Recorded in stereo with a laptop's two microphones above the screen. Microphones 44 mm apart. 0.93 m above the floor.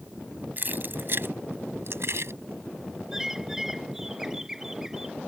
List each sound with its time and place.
0.6 s keys jangling: 45° right (ahead or behind); by 2.3 s 70° right (ahead or behind)
3.1 s a bird: 10° right (ahead or behind)